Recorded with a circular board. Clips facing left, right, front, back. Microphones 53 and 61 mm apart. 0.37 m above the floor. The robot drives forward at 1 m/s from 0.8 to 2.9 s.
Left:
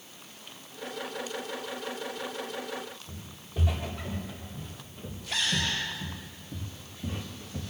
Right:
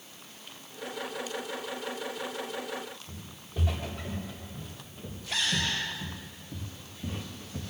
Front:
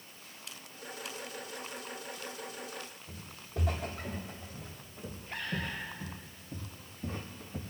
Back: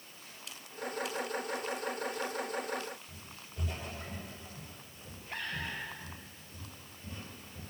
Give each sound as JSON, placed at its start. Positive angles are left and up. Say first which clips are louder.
{"t": 3.1, "sound": "footsteps", "louder": "left 1 dB, front 5 dB", "azimuth_deg": 0, "distance_m": 5.0}